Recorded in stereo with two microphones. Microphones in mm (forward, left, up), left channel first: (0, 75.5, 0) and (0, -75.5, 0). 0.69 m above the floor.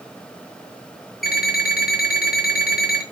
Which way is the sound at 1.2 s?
85° left.